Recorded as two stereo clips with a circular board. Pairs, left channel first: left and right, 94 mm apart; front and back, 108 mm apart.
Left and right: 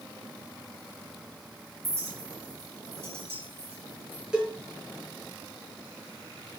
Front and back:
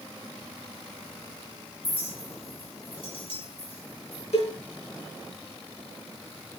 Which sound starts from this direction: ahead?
A cowbell, at 4.3 s.